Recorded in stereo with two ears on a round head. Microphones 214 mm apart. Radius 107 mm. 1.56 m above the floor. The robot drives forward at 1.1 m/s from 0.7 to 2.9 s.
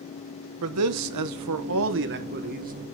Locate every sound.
0.6 s a man speaking: 65° right (ahead or behind), 1.3 m; by 2.7 s 35° right (ahead or behind), 2 m